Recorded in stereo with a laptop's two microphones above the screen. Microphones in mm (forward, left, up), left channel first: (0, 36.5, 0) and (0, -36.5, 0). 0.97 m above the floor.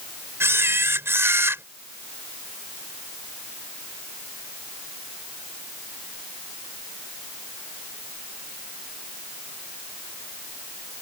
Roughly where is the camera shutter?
Right.